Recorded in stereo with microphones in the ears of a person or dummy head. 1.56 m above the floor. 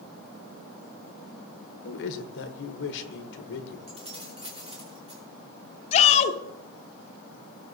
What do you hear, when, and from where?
1.8 s a man speaking: 70° left (ahead or behind), 1.1 m
3.9 s keys jangling: 35° right (ahead or behind), 1.7 m
5.9 s a shout: 45° left (ahead or behind), 0.7 m